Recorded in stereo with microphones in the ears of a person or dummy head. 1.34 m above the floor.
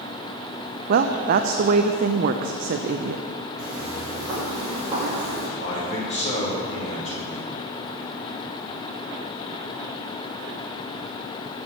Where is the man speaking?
40° left (ahead or behind), 3.5 m.